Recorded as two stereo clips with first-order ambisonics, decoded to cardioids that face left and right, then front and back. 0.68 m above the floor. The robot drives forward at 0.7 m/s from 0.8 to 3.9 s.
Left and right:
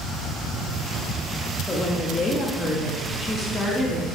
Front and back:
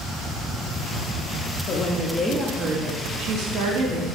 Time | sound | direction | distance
1.7 | a woman speaking | 25° left | 0.9 m